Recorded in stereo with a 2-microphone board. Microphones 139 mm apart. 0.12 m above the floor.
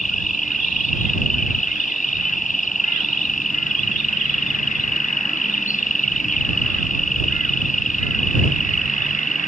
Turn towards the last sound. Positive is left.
turn(degrees=70)  # may be behind; listen again after turning